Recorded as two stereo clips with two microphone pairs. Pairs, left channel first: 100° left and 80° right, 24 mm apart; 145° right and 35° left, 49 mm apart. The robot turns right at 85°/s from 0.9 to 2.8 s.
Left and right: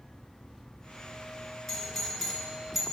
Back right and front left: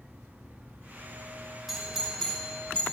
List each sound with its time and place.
1.7 s a doorbell: 105° left, 1.5 m; by 2.8 s 160° right, 1.5 m